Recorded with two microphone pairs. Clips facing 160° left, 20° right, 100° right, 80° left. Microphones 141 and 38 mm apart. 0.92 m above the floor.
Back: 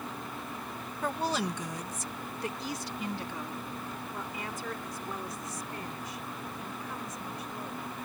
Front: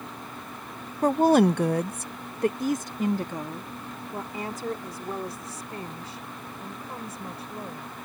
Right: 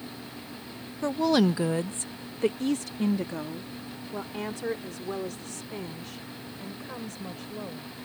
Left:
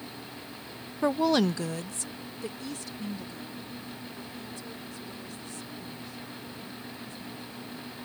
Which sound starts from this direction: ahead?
A woman speaking, at 1.0 s.